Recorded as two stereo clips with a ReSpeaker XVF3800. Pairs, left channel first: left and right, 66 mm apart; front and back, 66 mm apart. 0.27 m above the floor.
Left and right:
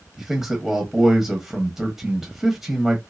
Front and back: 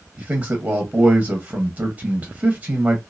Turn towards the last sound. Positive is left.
turn(degrees=-170)